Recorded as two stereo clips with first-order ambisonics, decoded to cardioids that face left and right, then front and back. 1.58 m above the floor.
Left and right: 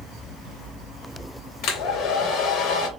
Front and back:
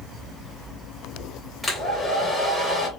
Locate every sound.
1.6 s a hair dryer: 90° left, 1.7 m